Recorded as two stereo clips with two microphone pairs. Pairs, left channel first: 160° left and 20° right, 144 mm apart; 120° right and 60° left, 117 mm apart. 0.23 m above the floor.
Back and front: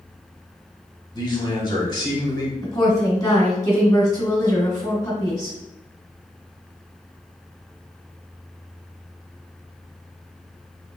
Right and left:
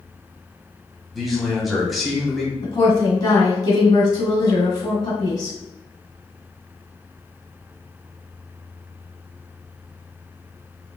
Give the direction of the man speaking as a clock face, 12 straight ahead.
7 o'clock.